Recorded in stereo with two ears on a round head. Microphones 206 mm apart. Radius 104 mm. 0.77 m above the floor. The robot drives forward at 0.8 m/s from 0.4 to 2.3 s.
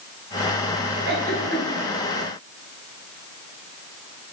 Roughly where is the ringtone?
I don't hear a ringtone.